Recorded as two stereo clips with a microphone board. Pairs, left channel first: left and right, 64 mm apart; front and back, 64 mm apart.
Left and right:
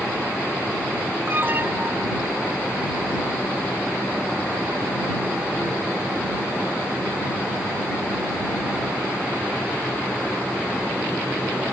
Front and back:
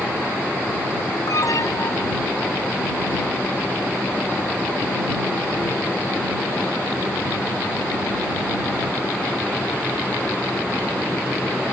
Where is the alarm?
30° right.